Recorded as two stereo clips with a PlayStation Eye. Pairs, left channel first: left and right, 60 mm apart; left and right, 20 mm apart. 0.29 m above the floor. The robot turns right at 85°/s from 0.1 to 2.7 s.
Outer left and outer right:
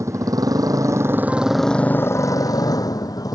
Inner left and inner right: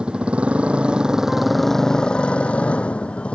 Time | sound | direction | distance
0.0 | a motorcycle | 125° right | ?